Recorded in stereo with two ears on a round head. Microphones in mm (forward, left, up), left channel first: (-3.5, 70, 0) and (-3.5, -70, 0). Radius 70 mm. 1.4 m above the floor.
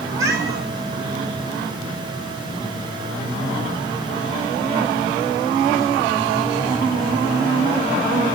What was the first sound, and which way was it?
A cat meowing, 20° right (ahead or behind).